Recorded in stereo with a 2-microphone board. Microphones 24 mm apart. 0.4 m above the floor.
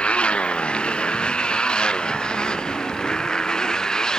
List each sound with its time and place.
0.0 s a motorcycle: 55° left (ahead or behind); by 4.2 s 30° left (ahead or behind)